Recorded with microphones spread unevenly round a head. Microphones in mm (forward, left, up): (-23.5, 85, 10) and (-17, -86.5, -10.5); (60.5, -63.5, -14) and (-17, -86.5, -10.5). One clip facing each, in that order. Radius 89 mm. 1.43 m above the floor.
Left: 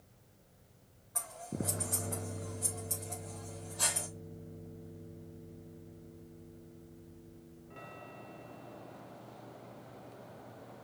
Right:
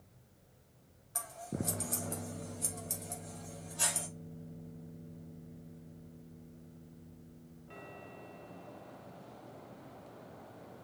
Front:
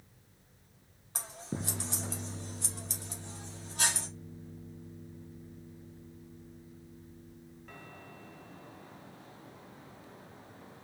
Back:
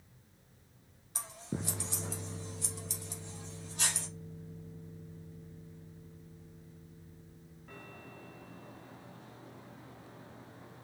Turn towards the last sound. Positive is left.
turn(degrees=-25)